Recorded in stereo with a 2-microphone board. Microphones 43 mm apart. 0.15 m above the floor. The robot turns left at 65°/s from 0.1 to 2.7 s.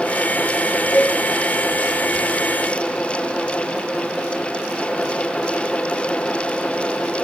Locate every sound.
0.9 s a cowbell: 40° left (ahead or behind), 1.2 m; by 1.2 s 30° left (ahead or behind), 1.2 m